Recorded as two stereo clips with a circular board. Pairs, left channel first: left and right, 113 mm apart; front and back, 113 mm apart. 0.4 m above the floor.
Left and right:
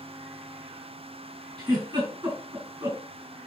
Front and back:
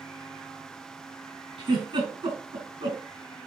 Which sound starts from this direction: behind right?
A giggle, at 1.6 s.